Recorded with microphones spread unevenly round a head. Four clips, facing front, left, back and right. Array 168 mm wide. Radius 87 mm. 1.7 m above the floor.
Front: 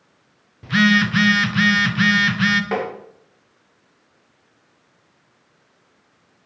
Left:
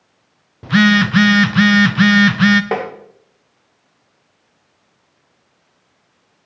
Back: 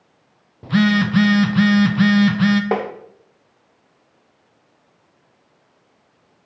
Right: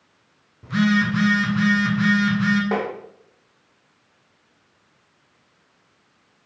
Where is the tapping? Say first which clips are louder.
Left 3 dB, back 2 dB; 150° left, 2.5 m.